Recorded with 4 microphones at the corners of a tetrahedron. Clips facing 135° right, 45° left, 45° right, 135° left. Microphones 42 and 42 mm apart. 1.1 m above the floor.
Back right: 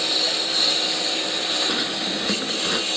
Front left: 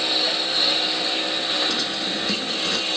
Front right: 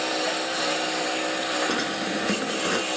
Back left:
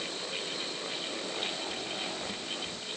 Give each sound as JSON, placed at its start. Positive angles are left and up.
{"t": 0.0, "sound": "a lawn mower", "azimuth_deg": -35}
{"t": 1.7, "sound": "a drawer", "azimuth_deg": -60}